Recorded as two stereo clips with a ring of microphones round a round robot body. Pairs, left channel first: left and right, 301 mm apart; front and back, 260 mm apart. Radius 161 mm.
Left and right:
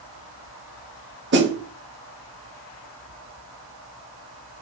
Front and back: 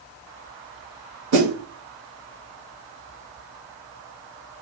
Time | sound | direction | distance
1.3 | a snare drum | 140° right | 3 m